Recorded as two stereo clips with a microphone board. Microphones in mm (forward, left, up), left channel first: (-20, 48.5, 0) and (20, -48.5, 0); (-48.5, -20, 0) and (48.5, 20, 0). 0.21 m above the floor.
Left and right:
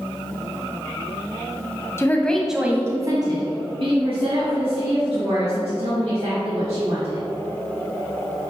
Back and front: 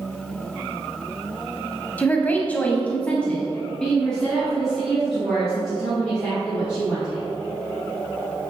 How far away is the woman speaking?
About 1.0 m.